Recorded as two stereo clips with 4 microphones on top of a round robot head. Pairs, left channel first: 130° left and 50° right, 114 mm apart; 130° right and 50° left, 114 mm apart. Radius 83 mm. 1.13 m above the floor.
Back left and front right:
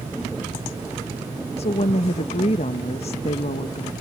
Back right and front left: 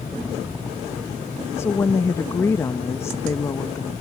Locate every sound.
1.6 s a woman speaking: 165° left